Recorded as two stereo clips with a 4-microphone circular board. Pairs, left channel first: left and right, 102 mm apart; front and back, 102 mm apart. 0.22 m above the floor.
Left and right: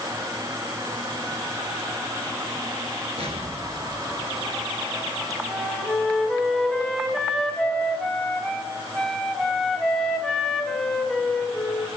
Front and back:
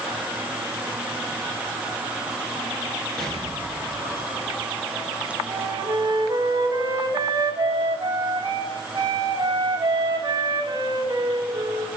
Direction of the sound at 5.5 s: 170° left.